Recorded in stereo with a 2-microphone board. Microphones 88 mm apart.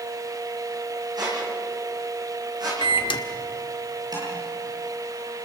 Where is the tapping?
50° right (ahead or behind), 8.5 m.